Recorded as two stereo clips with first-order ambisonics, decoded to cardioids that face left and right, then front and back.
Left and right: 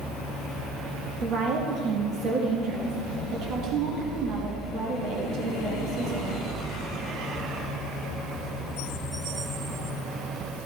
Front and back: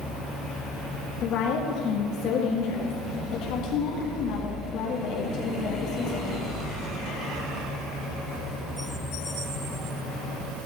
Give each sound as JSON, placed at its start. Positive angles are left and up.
{"t": 1.2, "sound": "a woman speaking", "azimuth_deg": -40, "distance_m": 1.8}